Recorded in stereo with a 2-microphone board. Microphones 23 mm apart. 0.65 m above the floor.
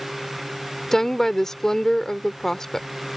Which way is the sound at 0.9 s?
20° left (ahead or behind).